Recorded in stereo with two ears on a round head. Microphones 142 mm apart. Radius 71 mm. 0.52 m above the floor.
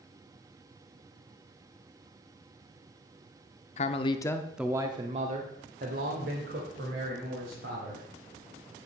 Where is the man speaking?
45° left (ahead or behind), 0.9 m; by 8.1 s 75° right (ahead or behind), 3 m.